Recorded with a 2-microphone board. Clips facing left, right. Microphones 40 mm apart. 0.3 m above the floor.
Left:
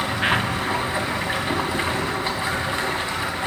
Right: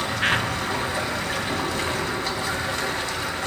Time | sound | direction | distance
0.0 | running water | 20° left (ahead or behind) | 1.4 m